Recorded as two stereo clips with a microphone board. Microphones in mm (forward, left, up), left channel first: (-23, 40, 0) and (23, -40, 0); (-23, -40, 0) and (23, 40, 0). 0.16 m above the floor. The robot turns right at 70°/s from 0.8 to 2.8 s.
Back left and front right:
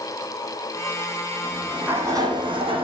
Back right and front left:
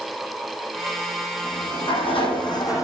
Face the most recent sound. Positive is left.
turn(degrees=-65)